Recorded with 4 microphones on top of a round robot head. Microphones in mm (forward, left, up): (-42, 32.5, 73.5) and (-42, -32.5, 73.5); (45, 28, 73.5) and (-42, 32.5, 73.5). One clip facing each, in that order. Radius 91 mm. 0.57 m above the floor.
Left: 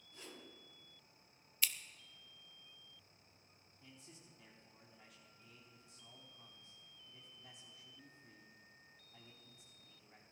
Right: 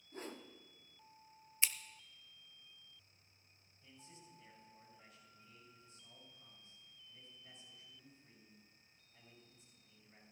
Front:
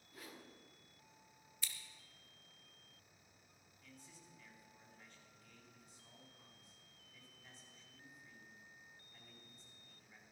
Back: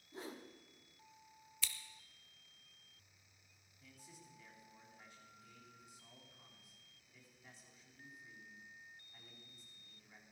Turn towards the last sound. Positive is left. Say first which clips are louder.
# right 1 dB, back 1 dB
turn(degrees=90)